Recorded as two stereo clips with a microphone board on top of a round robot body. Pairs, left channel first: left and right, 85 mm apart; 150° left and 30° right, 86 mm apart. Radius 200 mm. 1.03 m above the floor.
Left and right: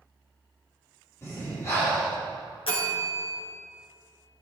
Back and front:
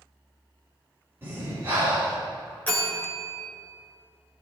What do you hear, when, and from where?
1.2 s breathing: 35° left, 5.5 m
2.7 s a bell: 80° left, 3.5 m